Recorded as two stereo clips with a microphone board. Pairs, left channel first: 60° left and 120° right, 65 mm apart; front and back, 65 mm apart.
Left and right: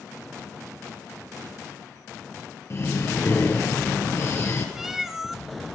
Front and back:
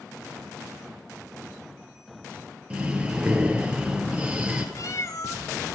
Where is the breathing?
110° left, 2 m.